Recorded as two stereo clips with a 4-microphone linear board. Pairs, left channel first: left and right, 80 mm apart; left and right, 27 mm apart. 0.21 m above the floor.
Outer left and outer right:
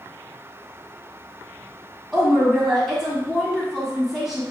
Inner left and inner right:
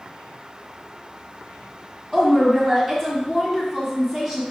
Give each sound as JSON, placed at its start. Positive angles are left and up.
{"t": 2.1, "sound": "a woman speaking", "side_deg": 0, "distance_m": 1.6}